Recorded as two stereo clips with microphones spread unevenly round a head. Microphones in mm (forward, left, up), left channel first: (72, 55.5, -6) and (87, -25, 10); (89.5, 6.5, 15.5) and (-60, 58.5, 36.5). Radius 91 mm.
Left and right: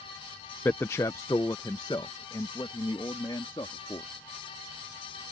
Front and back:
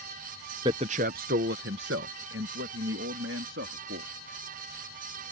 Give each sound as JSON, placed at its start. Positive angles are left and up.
{"t": 0.7, "sound": "a man speaking", "azimuth_deg": 170}